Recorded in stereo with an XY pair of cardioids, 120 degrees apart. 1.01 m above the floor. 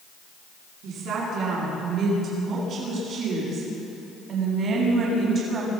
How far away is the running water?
No running water in this recording.